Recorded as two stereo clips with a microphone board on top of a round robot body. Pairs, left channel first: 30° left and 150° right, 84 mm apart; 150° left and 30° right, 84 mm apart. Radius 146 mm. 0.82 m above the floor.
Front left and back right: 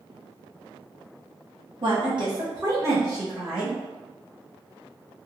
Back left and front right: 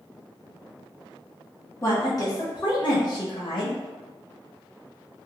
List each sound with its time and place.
1.8 s a woman speaking: 160° right, 1.3 m; by 3.8 s 140° left, 1.3 m